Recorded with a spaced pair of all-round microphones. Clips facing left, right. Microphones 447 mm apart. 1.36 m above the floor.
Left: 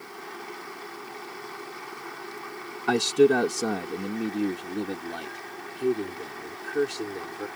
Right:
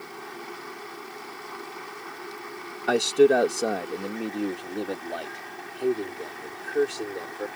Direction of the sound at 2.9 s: 15° left (ahead or behind).